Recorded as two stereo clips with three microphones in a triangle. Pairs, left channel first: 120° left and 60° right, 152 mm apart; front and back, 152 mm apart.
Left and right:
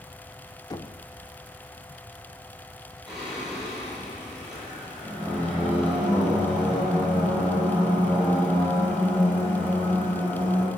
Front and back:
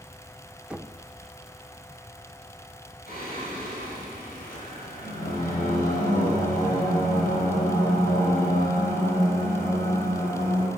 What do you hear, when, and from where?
0.7 s knocking: 105° left, 0.9 m
3.1 s singing: 25° left, 9.5 m